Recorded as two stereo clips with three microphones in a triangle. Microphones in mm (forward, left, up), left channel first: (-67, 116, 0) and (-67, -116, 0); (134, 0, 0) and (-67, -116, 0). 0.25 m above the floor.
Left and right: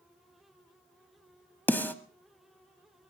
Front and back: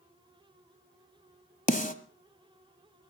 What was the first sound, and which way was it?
A snare drum, 15° left.